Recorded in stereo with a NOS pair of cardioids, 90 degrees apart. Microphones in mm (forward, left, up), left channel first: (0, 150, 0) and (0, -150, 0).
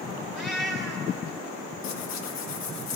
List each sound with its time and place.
0.3 s a cat meowing: straight ahead, 3.5 m
1.8 s tearing paper: 65° left, 1.2 m